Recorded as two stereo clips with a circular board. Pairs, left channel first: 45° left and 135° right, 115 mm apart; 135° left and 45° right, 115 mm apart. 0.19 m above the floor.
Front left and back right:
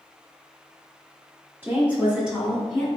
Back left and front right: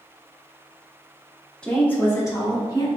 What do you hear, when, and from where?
1.6 s a woman speaking: 160° right, 1.2 m; by 2.9 s 130° left, 1.5 m